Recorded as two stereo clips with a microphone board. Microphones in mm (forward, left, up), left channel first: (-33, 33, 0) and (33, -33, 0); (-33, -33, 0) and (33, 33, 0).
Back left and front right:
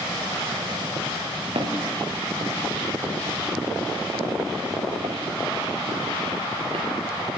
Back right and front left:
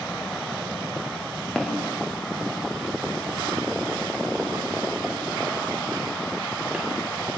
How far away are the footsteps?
About 9.5 m.